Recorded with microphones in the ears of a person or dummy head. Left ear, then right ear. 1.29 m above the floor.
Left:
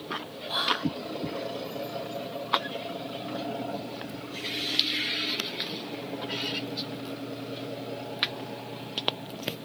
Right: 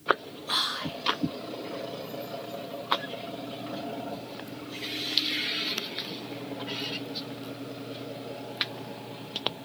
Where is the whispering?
80° right, 2.5 m.